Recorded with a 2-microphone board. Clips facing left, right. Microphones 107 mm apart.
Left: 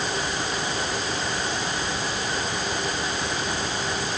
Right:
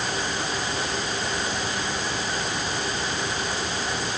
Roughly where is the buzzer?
I don't hear a buzzer.